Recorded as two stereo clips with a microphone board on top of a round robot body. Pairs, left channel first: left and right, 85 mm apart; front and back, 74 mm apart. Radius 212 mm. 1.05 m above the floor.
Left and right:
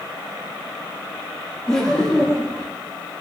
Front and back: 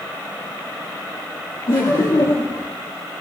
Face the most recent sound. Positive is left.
turn(degrees=10)